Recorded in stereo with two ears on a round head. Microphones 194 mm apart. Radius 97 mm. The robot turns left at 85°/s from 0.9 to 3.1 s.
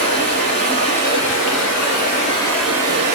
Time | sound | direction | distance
0.0 | running water | 150° left | 2 m